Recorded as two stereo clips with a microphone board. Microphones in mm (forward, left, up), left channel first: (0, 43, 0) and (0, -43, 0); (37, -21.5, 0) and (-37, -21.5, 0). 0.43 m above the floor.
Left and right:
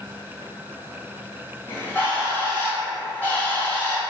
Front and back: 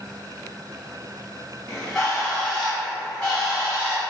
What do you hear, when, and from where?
1.7 s a bird: 60° left, 1.1 m